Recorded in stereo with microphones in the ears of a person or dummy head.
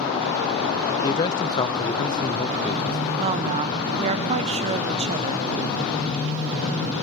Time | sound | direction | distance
1.0 | a man speaking | 25° left (ahead or behind) | 0.6 m
3.2 | a woman speaking | 35° right (ahead or behind) | 0.8 m